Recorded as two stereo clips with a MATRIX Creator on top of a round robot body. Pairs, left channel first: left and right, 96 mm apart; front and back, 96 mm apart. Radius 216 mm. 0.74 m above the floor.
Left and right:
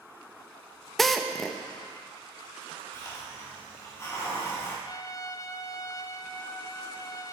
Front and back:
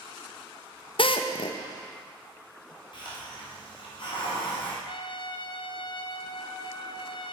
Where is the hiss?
30° left, 3 m.